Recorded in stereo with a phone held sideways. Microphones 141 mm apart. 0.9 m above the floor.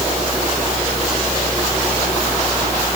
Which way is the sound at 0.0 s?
Centre (ahead or behind).